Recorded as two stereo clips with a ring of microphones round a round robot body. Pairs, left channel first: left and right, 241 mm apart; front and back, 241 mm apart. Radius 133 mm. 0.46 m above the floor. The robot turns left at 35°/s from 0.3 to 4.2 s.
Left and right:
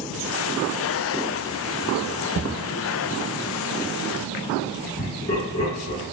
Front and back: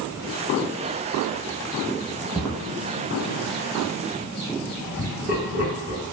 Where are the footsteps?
95° right, 0.7 m; by 2.6 s 100° right, 0.7 m.